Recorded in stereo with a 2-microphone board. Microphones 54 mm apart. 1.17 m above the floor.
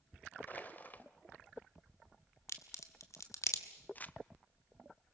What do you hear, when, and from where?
0.5 s crushing: 35° left (ahead or behind), 1.1 m
2.5 s a crack: 70° left (ahead or behind), 1.8 m
4.0 s crumpling: 30° left (ahead or behind), 0.6 m